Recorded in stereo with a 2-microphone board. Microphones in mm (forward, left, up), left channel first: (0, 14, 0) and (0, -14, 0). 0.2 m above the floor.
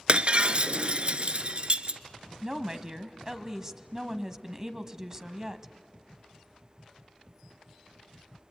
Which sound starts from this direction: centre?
A woman speaking, at 2.4 s.